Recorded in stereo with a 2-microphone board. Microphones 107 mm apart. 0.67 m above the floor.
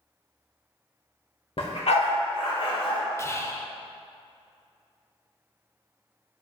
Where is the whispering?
30° left (ahead or behind), 0.6 m.